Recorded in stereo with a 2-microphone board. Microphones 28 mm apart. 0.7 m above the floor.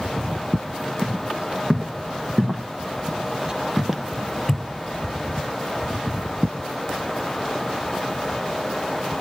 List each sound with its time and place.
1.0 s footsteps: 50° right (ahead or behind), 2 m; by 4.7 s 20° left (ahead or behind), 0.7 m